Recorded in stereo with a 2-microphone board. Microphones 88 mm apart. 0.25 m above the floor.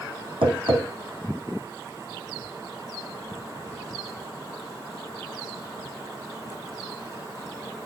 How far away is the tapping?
About 4 m.